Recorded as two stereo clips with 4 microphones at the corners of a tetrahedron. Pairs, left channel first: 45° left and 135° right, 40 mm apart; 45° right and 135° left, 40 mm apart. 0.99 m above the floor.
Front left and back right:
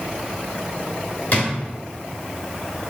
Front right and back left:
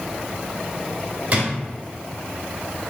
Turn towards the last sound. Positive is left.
turn(degrees=90)